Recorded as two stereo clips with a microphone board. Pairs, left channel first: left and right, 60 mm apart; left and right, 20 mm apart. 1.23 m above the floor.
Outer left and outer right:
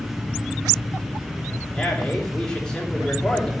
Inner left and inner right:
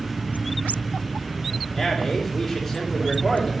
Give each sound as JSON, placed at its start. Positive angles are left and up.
{"t": 1.7, "sound": "a man speaking", "side_deg": 15, "distance_m": 3.0}